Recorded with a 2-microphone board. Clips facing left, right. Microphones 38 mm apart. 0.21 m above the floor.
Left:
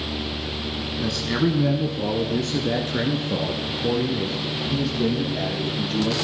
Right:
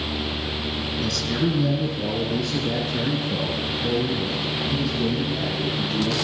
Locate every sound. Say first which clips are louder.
1.0 s a man speaking: left 2 dB; 35° left (ahead or behind), 1.2 m; by 6.1 s 80° left, 6 m